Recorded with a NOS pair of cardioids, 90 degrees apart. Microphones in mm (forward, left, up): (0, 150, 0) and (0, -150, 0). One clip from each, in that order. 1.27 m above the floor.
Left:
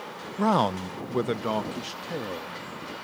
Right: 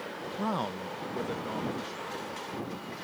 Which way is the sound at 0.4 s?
30° left.